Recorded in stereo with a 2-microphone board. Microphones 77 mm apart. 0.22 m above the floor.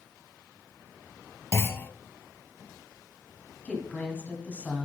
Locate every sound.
1.5 s a clunk: 35° left (ahead or behind), 0.5 m
3.6 s a woman speaking: 15° left (ahead or behind), 1.7 m